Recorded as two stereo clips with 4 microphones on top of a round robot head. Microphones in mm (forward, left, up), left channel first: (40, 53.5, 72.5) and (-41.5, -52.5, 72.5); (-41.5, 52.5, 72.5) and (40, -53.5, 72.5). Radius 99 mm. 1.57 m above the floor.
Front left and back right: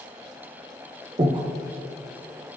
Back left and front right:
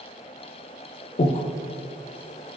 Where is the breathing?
175° left, 0.5 m.